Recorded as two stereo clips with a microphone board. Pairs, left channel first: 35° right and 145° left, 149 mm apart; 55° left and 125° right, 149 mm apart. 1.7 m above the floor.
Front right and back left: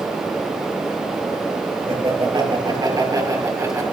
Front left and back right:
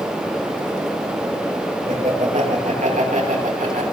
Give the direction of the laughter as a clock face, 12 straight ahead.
5 o'clock.